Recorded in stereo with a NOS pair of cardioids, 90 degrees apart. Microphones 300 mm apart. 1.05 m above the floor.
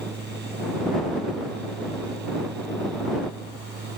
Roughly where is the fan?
Ahead right.